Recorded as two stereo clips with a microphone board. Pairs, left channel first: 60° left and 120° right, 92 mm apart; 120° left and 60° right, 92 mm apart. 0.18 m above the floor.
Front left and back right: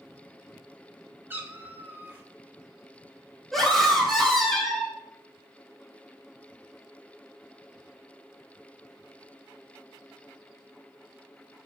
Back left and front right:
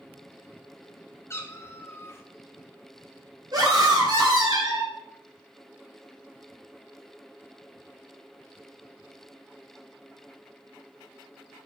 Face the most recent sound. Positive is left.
turn(degrees=-30)